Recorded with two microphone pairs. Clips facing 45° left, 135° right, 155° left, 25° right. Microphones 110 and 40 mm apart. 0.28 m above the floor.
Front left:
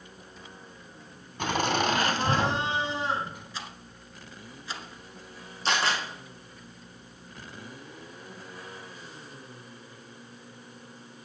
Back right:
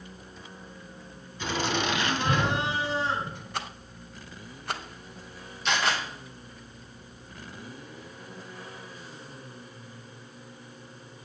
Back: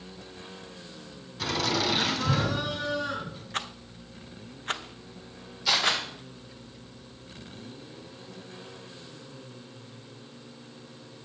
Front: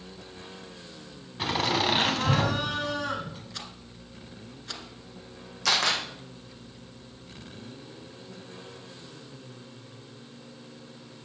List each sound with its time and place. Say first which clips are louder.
1.4 s laughter: front left 2 dB, front 2 dB; 35° left, 2.5 m; by 3.4 s 35° right, 2.5 m
3.5 s a rattle: back right 5 dB, back 7 dB; 160° right, 0.6 m
5.7 s a camera shutter: even, even; 10° right, 5 m